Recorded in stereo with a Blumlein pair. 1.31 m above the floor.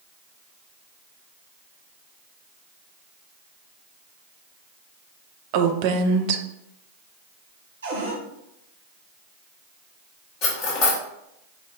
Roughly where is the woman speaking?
Ahead right.